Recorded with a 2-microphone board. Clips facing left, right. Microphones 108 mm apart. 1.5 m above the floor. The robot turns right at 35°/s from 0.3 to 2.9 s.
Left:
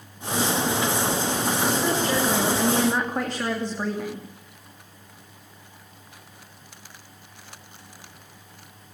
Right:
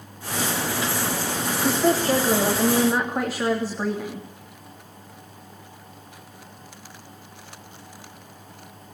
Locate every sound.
1.6 s a woman speaking: 50° right, 3 m; by 4.3 s 5° right, 3 m